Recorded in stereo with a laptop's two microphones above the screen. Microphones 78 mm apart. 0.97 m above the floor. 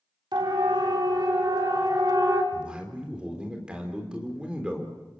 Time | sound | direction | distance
0.3 | a siren | 70° right (ahead or behind) | 3.5 m
2.5 | a man speaking | 15° right (ahead or behind) | 3.5 m